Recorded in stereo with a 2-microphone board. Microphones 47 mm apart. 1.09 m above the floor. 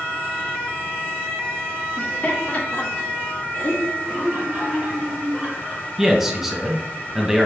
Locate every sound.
2.0 s laughter: 35° left (ahead or behind), 1.9 m
4.0 s laughter: 15° right (ahead or behind), 3 m
6.0 s a man speaking: 10° right (ahead or behind), 1.2 m